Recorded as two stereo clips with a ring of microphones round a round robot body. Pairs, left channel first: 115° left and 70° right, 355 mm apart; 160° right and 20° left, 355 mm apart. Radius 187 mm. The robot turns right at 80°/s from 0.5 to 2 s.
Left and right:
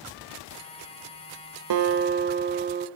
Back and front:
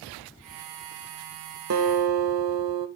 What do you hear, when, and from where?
1.7 s a guitar: 30° right, 0.9 m; by 2.9 s 5° right, 0.9 m